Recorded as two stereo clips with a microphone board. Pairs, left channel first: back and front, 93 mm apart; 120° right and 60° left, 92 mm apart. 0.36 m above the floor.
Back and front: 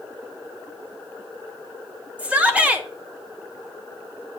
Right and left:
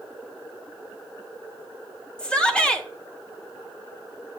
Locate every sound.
2.2 s a shout: 55° right, 1.2 m